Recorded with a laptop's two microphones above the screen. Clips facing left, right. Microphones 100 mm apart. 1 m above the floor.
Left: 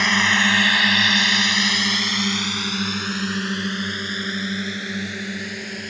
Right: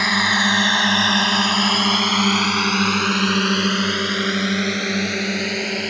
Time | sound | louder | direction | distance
0.0 | a drone | right 1 dB | 10° right (ahead or behind) | ?